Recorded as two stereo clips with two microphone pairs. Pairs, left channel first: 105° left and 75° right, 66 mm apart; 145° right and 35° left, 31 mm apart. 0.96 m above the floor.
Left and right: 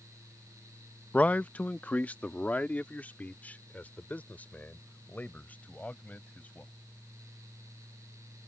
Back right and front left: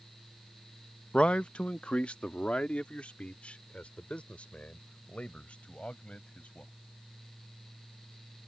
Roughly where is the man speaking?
Behind.